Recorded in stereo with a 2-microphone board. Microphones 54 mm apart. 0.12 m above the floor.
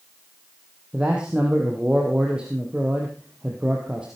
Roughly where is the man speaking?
Centre.